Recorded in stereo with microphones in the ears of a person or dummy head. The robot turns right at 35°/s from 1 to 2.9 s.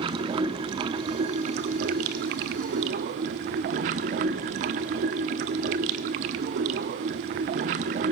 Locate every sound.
0.0 s running water: 140° right, 1.0 m; by 8.1 s 70° right, 1.0 m